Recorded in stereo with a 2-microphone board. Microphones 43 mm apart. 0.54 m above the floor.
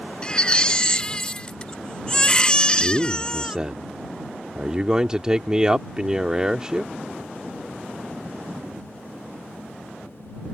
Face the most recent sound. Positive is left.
turn(degrees=-15)  # may be behind; listen again after turning